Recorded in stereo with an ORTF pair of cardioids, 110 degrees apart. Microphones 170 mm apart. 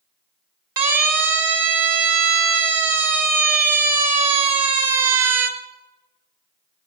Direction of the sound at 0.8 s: 55° right.